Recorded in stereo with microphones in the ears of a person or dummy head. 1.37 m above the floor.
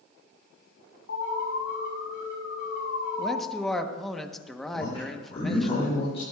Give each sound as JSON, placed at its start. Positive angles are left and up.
{"t": 1.1, "sound": "an alarm", "side_deg": 65, "distance_m": 5.5}
{"t": 3.2, "sound": "a man speaking", "side_deg": 0, "distance_m": 1.1}
{"t": 4.7, "sound": "a man speaking", "side_deg": 35, "distance_m": 4.0}